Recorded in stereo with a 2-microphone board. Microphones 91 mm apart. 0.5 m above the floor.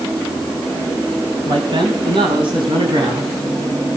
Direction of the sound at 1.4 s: 55° right (ahead or behind).